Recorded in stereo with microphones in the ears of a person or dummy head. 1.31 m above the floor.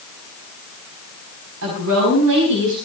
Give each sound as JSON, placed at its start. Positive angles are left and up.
{"t": 1.6, "sound": "a woman speaking", "side_deg": -75, "distance_m": 4.5}